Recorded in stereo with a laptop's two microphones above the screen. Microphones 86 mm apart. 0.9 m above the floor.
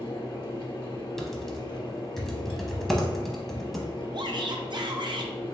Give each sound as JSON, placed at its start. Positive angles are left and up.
{"t": 0.0, "sound": "a fan", "side_deg": 70, "distance_m": 0.8}
{"t": 1.2, "sound": "typing on a keyboard", "side_deg": 0, "distance_m": 0.7}
{"t": 4.1, "sound": "a shout", "side_deg": -55, "distance_m": 0.6}